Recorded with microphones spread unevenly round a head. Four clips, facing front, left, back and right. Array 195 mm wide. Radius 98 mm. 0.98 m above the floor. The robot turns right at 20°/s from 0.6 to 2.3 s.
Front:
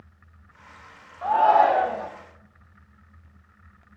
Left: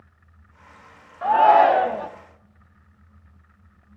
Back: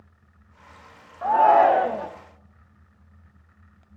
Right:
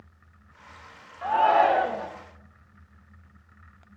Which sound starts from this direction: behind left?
A shout, at 1.2 s.